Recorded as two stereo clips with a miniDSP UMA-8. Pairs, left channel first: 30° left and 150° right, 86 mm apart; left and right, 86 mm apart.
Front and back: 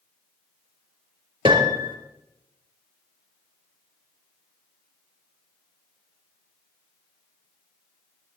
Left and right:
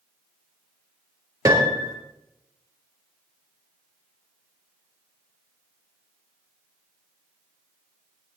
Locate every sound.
1.4 s a piano: 135° right, 2.5 m